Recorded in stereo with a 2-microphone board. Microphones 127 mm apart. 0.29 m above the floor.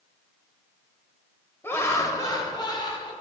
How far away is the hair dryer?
No hair dryer in this recording.